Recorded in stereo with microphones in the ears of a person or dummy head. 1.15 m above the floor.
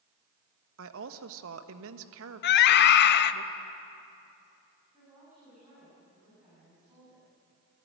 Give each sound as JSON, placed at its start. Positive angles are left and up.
{"t": 0.8, "sound": "a woman speaking", "side_deg": -75, "distance_m": 1.2}
{"t": 2.4, "sound": "a scream", "side_deg": 60, "distance_m": 1.1}
{"t": 4.9, "sound": "a woman speaking", "side_deg": -10, "distance_m": 10.0}